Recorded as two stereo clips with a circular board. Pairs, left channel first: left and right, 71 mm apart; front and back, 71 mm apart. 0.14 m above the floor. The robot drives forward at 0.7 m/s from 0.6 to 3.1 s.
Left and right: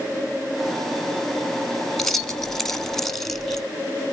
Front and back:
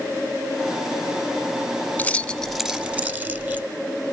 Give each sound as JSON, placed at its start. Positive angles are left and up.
{"t": 2.0, "sound": "keys jangling", "azimuth_deg": 10, "distance_m": 0.9}